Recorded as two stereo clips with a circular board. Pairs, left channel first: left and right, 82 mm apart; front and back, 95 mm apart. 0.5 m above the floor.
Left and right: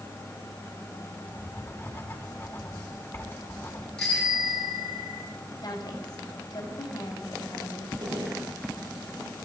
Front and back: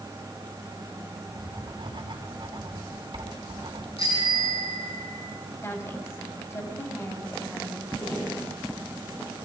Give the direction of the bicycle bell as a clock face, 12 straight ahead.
12 o'clock.